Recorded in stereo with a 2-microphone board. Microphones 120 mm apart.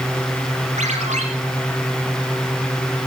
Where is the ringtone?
80° right, 5.5 m.